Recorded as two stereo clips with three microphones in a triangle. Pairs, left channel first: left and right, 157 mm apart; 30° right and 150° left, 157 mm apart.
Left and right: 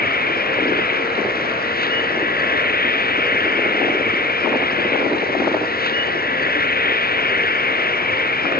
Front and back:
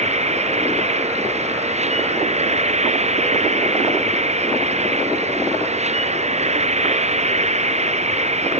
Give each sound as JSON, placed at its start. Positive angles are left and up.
{"t": 0.0, "sound": "an insect", "azimuth_deg": 105}